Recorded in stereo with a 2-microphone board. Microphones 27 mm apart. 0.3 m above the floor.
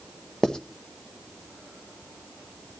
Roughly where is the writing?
Left.